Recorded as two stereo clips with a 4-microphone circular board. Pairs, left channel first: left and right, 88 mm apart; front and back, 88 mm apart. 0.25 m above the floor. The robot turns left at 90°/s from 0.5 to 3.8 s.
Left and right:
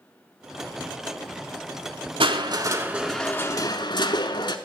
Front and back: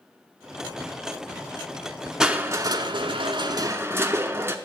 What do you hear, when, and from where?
2.2 s crushing: 100° right, 0.8 m; by 4.6 s 120° left, 0.8 m